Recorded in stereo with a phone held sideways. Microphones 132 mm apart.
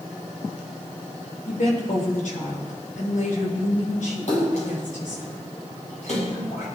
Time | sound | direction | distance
1.5 | a woman speaking | 85° left | 7.5 m
4.3 | a splash | 70° left (ahead or behind) | 7 m